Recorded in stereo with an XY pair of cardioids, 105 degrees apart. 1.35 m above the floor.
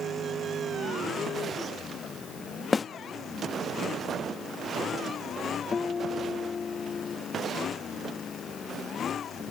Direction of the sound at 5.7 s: 35° left.